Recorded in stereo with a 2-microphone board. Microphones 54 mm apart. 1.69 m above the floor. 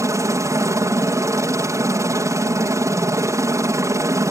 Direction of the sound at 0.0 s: 65° right (ahead or behind).